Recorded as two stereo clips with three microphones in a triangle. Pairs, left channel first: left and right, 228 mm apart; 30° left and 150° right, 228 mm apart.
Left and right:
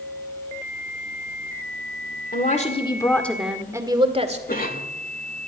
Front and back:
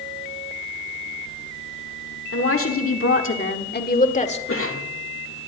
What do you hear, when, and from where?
2.3 s a woman speaking: 40° left, 1.8 m; by 4.4 s 30° right, 2.0 m
4.5 s a cough: 40° left, 2 m